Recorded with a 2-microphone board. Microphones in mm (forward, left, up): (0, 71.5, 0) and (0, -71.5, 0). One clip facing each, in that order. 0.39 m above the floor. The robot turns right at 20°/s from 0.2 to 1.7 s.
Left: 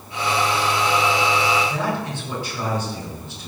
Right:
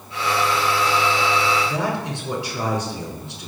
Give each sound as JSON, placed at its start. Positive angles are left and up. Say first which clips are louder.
{"t": 1.6, "sound": "a man speaking", "louder": "even", "side_deg": -75, "distance_m": 5.5}